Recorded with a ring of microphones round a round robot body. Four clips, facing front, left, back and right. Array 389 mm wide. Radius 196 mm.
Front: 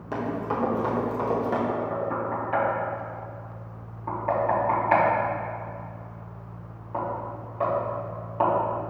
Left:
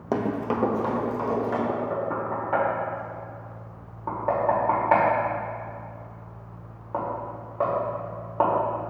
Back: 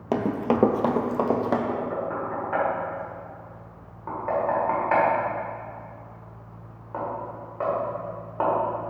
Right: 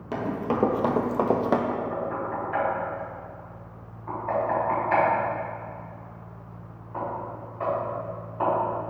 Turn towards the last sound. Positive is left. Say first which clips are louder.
# left 2 dB, even
turn(degrees=100)